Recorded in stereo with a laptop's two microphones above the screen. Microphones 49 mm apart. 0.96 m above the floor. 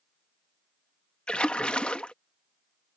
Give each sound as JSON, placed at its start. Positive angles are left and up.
{"t": 1.3, "sound": "a splash", "side_deg": 25}